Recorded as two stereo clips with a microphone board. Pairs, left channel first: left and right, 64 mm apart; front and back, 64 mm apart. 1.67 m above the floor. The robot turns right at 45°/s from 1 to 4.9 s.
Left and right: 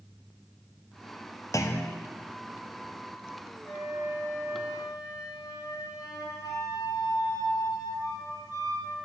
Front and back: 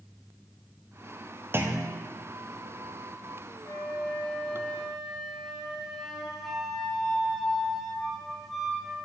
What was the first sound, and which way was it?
A clunk, 125° left.